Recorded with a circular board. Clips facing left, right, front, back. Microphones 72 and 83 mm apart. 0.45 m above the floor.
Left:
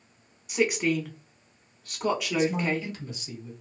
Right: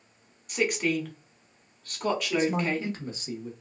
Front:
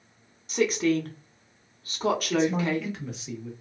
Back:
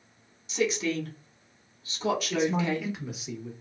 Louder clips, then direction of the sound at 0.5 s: Left 2 dB, front 4 dB; 10° left.